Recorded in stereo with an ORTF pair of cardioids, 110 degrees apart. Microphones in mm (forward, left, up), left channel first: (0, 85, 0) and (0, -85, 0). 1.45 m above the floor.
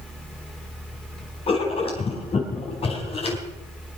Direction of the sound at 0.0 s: 5° left.